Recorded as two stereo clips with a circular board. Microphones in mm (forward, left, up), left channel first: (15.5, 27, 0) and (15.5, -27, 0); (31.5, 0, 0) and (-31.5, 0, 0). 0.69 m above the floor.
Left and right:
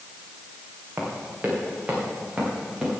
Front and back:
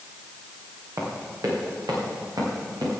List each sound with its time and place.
1.0 s running footsteps: 150° right, 5.5 m; by 3.0 s 165° right, 8 m